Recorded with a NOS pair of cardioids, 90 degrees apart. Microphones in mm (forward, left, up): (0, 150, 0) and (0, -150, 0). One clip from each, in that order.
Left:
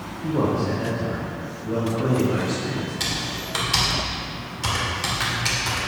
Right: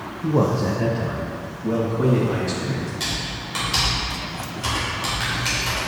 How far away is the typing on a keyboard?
About 2.0 m.